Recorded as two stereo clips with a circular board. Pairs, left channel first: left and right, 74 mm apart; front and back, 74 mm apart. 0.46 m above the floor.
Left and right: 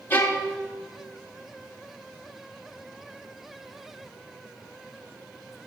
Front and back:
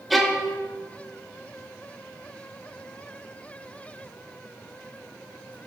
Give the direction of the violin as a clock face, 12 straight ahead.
9 o'clock.